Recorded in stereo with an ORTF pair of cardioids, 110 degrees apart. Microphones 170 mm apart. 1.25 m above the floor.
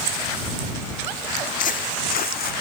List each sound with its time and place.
1.4 s footsteps: 50° left; by 2.5 s 70° left